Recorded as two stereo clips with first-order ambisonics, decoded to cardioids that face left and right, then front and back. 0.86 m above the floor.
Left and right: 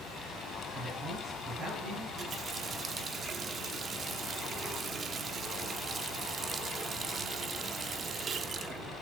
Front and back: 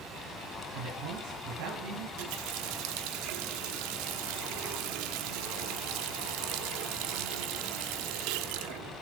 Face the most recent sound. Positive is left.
turn(degrees=-160)